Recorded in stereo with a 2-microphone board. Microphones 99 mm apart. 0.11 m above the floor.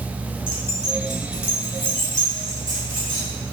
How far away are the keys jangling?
About 1.4 m.